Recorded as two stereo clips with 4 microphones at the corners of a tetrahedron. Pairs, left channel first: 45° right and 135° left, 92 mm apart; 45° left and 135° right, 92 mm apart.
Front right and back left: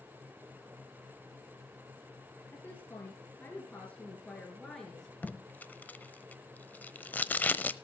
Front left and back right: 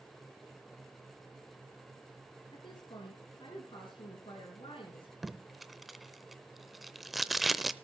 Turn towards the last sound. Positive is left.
turn(degrees=-50)